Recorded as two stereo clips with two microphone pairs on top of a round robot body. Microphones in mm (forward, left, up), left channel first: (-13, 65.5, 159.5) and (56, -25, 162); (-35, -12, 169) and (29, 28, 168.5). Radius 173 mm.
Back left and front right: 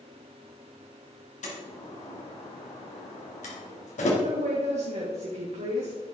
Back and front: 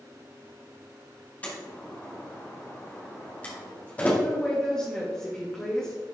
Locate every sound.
1.4 s a door slam: 140° left, 2.5 m
4.2 s a woman speaking: 65° right, 2 m